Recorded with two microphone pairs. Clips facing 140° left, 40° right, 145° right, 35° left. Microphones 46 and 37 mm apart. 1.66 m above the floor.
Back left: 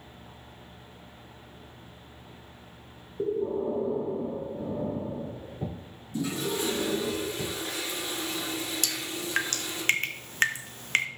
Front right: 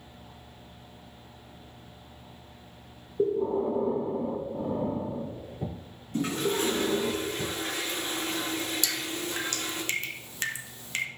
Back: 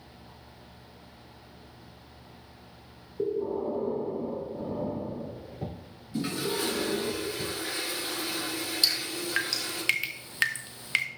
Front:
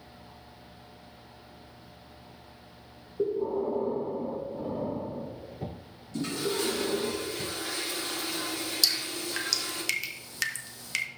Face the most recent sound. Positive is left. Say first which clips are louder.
# front right 1 dB, back 1 dB
turn(degrees=165)